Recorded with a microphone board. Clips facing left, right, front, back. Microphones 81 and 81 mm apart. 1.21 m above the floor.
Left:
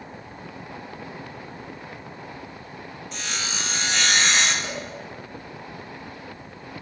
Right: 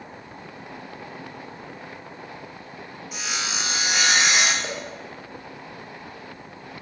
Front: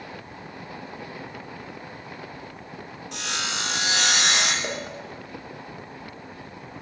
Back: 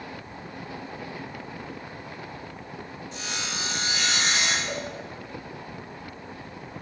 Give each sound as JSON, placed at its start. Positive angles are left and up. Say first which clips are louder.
{"t": 3.1, "sound": "sawing", "louder": "right 2 dB, front 4 dB", "azimuth_deg": -10, "distance_m": 1.7}
{"t": 4.6, "sound": "a cowbell", "louder": "right 1 dB, front 1 dB", "azimuth_deg": -20, "distance_m": 3.0}